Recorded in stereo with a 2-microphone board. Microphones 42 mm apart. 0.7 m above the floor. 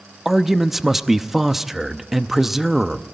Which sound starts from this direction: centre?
A man speaking, at 0.2 s.